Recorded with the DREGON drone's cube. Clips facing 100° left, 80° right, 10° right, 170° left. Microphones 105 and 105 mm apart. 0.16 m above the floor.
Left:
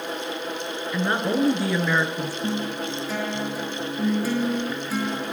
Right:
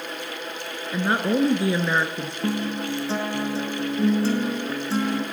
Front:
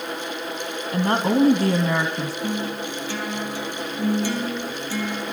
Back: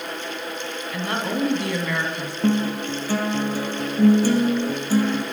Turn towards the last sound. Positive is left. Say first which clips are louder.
# right 4 dB, back 10 dB
turn(degrees=-140)